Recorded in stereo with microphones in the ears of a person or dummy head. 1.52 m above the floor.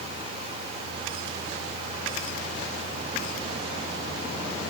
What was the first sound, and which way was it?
Only background noise.